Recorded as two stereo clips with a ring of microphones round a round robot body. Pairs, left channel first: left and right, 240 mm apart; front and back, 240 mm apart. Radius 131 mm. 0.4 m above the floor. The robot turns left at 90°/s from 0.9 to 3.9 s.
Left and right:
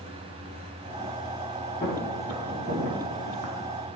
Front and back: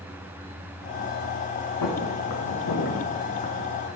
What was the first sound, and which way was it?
Footsteps, 25° left.